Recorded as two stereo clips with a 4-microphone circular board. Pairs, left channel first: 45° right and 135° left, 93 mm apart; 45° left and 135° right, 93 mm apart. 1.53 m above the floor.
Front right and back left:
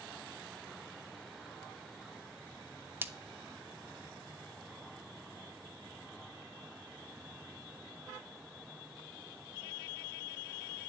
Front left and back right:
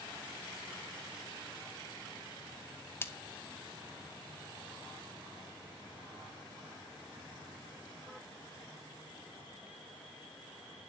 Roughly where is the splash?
Left.